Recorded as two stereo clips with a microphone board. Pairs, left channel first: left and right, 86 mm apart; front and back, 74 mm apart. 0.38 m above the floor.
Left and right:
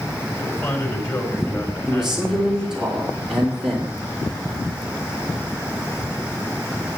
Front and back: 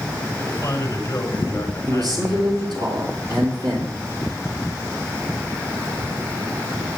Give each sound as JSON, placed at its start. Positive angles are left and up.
{"t": 0.3, "sound": "a man speaking", "azimuth_deg": 55, "distance_m": 5.0}
{"t": 1.9, "sound": "a man speaking", "azimuth_deg": -170, "distance_m": 4.5}